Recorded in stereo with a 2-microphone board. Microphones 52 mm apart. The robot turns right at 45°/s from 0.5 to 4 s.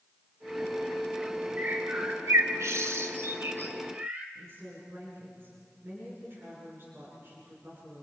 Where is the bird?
40° right (ahead or behind), 1.8 m; by 4.2 s 30° right (ahead or behind), 1.8 m.